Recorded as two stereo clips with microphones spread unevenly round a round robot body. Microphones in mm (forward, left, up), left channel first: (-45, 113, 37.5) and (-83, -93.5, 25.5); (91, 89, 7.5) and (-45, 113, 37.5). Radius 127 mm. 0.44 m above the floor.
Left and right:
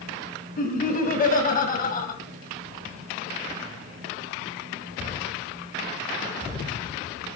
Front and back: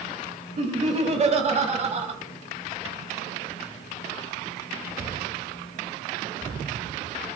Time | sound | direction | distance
0.6 | laughter | 130° left | 3.5 m